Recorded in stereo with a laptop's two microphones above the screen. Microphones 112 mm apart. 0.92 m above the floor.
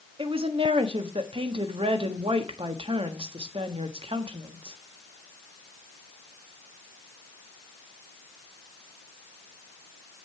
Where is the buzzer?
No buzzer in this recording.